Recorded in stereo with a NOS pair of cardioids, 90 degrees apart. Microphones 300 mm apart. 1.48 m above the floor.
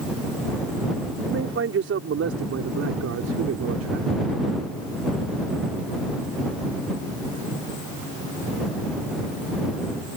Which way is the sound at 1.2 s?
45° right.